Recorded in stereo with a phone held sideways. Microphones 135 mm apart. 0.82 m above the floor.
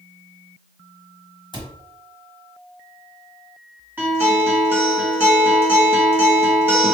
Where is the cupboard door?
35° left (ahead or behind), 1.0 m.